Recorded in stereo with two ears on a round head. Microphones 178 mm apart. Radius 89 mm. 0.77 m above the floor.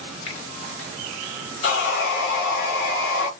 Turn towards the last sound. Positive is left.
turn(degrees=65)  # may be behind; listen again after turning